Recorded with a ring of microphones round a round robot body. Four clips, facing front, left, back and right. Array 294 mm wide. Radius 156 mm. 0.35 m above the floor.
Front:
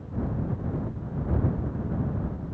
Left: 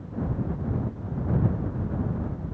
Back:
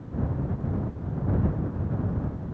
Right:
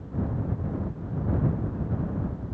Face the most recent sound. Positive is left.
No sound to turn to.